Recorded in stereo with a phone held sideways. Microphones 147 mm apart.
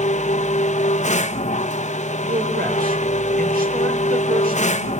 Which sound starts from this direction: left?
A machine running, at 0.0 s.